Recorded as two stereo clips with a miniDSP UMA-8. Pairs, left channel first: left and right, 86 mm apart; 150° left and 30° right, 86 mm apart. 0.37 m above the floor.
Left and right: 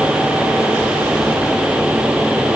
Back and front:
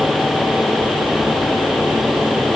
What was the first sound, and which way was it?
Only background noise.